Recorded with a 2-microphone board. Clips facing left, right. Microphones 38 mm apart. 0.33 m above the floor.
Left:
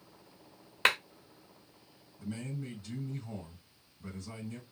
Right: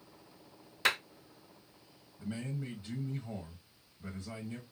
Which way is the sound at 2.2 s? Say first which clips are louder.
Even; 35° right (ahead or behind).